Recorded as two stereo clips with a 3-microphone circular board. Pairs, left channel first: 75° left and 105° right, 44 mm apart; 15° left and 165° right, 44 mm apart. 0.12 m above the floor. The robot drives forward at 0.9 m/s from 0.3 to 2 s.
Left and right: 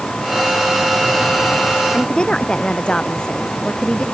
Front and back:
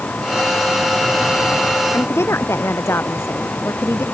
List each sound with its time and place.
1.9 s a woman speaking: 5° left